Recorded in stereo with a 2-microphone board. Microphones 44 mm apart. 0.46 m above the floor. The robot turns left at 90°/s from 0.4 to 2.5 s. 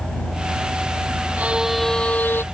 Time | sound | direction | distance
1.4 | a violin | 145° right | ?